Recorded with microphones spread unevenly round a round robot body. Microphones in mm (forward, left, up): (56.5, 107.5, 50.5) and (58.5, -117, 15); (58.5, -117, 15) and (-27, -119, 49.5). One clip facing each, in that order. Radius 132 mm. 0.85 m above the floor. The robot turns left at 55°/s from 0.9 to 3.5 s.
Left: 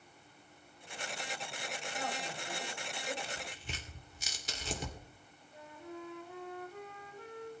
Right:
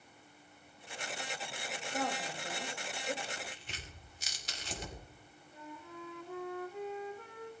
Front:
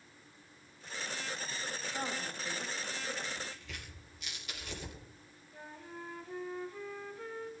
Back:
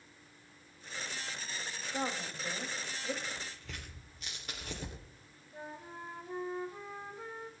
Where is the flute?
115° right, 1.8 m.